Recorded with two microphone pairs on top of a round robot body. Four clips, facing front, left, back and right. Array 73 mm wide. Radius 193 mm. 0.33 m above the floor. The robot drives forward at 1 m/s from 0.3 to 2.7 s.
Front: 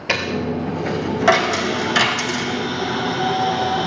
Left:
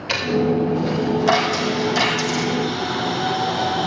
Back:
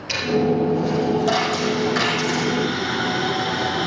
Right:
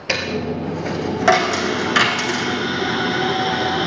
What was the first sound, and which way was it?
A dropped coin, 35° right.